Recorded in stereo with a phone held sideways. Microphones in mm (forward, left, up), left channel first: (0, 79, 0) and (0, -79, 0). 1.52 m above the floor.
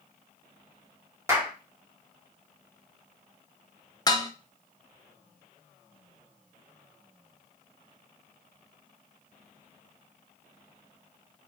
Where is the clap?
20° right (ahead or behind), 1.5 m.